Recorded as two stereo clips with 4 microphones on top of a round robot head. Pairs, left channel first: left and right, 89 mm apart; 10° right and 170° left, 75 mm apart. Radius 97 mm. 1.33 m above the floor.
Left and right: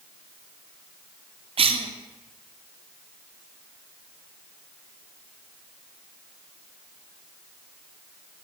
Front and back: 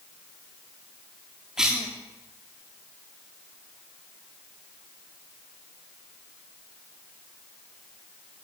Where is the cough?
105° right, 3 m.